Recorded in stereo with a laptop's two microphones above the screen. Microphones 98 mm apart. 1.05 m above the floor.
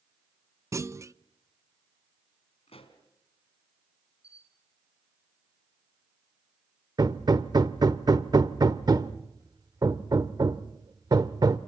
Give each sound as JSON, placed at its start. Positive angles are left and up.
{"t": 0.7, "sound": "a clunk", "side_deg": -30, "distance_m": 0.6}
{"t": 2.7, "sound": "a pop", "side_deg": 75, "distance_m": 2.5}
{"t": 4.2, "sound": "a camera shutter", "side_deg": -70, "distance_m": 6.5}
{"t": 7.0, "sound": "hammering", "side_deg": -40, "distance_m": 0.9}